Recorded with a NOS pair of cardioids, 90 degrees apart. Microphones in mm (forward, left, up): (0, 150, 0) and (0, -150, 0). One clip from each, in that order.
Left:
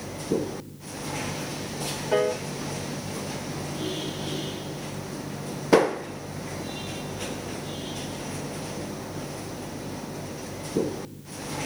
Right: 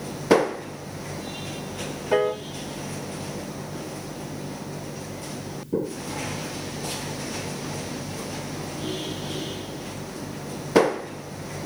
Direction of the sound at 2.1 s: 25° right.